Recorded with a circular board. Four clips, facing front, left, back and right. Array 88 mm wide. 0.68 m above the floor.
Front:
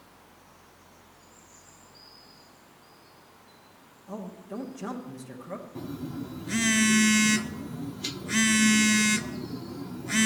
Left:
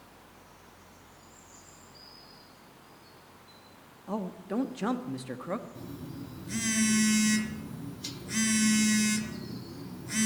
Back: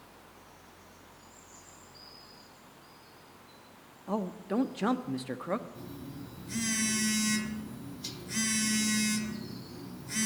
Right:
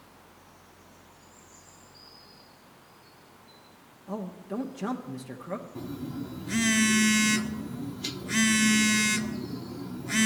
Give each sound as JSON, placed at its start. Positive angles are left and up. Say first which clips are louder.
{"t": 4.1, "sound": "a man speaking", "louder": "left 1 dB, back 6 dB", "azimuth_deg": 155, "distance_m": 0.8}
{"t": 5.8, "sound": "a phone buzzing", "louder": "right 6 dB, front 8 dB", "azimuth_deg": -35, "distance_m": 0.5}